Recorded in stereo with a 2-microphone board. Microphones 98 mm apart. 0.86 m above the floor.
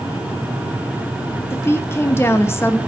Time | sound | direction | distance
1.5 | a woman speaking | 25° left (ahead or behind) | 1.1 m